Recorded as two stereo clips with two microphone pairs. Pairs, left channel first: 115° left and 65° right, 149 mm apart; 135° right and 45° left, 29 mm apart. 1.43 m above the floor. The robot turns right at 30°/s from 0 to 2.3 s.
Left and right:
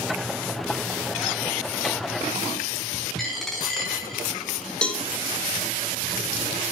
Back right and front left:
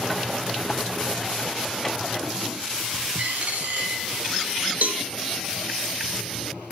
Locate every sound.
3.2 s a dropped coin: 30° left, 4.5 m
4.8 s a cowbell: 35° left, 2 m